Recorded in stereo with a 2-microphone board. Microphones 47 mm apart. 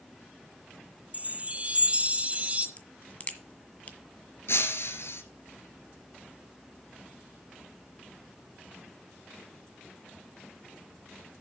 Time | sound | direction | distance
1.1 | a chime | 30° right (ahead or behind) | 1.5 m
2.8 | a crack | 30° left (ahead or behind) | 1.6 m
4.5 | breaking glass | 65° left (ahead or behind) | 1.8 m